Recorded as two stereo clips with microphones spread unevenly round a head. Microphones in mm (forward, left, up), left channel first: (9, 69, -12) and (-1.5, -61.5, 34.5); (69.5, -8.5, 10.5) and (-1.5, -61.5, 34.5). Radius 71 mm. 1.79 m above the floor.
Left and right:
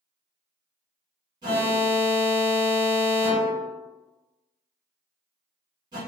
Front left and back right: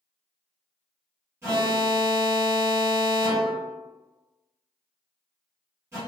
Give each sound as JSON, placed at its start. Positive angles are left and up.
{"t": 1.4, "sound": "an alarm", "azimuth_deg": -105, "distance_m": 1.4}